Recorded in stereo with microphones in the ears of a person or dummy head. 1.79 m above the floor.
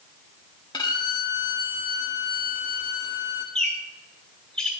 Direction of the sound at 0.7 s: 20° left (ahead or behind).